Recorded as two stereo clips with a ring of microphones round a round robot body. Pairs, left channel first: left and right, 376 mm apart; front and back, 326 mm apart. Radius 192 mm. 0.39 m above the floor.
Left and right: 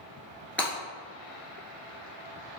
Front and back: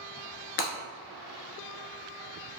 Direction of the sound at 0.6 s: 5° left.